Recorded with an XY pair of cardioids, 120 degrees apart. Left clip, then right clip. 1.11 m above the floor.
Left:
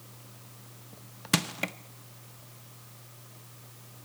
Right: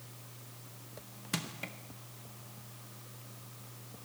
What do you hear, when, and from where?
1.3 s crushing: 55° left, 0.7 m